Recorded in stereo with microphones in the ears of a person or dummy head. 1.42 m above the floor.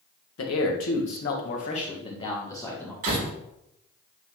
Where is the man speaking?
80° left, 1.5 m; by 2.9 s 10° left (ahead or behind), 1.8 m.